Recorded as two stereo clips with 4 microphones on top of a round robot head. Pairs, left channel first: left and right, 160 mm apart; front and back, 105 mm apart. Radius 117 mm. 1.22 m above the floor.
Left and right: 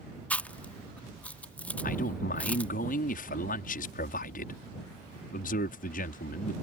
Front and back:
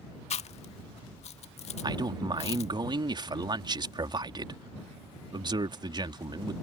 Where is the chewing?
10° left.